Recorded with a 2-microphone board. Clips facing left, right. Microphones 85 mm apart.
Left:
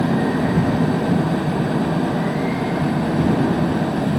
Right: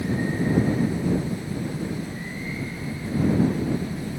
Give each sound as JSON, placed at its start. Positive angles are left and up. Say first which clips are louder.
{"t": 0.0, "sound": "an engine running", "louder": "left 7 dB", "side_deg": 75}